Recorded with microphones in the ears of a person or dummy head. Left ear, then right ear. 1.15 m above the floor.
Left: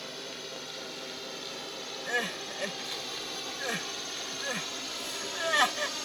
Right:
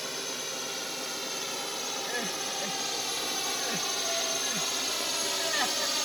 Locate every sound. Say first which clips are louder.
0.0 s a drone: right 5 dB; 25° right (ahead or behind)
2.1 s crying: even; 40° left (ahead or behind)